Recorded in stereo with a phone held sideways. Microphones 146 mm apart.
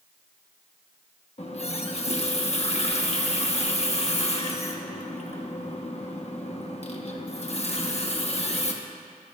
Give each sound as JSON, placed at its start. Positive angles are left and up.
{"t": 1.4, "sound": "a running tap", "side_deg": 45, "distance_m": 1.1}